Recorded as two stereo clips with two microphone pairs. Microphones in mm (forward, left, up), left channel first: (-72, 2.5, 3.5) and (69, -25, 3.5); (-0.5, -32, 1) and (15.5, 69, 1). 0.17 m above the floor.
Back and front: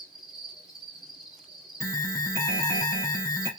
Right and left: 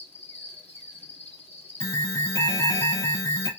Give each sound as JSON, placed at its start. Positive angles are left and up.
{"t": 0.0, "sound": "an insect", "azimuth_deg": -100, "distance_m": 1.5}
{"t": 1.8, "sound": "an alarm", "azimuth_deg": -130, "distance_m": 0.9}